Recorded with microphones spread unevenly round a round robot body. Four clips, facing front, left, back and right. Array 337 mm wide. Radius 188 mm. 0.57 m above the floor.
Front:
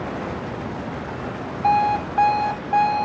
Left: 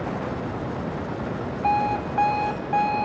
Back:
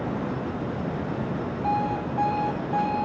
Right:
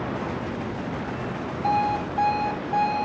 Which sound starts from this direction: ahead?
An alarm clock, at 1.6 s.